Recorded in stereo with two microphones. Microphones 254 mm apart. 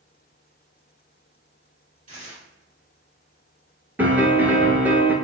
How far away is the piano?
About 0.5 m.